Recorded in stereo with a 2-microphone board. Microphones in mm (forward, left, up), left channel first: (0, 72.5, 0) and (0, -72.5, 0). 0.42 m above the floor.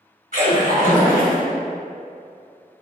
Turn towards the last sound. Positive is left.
turn(degrees=-75)  # may be behind; listen again after turning